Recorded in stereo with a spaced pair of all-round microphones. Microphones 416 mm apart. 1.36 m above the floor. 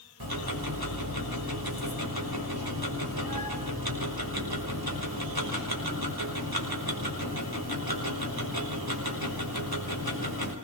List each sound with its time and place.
0.2 s ticking: 60° right (ahead or behind), 5.5 m